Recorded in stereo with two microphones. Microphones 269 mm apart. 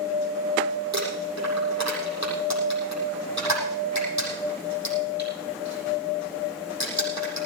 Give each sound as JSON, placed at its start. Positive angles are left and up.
{"t": 0.9, "sound": "crumpling", "side_deg": -80, "distance_m": 8.0}